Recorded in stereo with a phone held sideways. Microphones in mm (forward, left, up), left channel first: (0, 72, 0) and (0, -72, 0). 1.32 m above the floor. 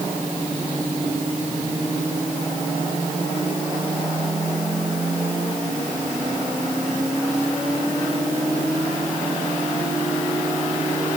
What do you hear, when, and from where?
Only background noise.